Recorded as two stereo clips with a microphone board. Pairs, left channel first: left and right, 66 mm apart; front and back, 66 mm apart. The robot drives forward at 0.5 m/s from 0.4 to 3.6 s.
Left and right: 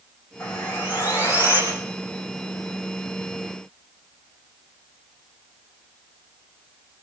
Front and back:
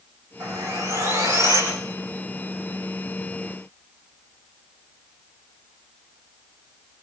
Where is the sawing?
150° left, 9 m.